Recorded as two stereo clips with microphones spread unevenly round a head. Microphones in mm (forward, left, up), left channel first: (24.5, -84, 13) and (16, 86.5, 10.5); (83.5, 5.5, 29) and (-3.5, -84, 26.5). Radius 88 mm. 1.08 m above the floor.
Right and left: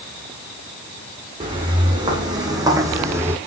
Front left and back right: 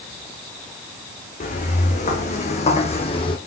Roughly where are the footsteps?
Ahead left.